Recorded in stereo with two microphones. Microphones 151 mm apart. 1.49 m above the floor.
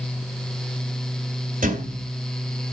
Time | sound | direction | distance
1.6 | a thud | 60° right (ahead or behind) | 2.5 m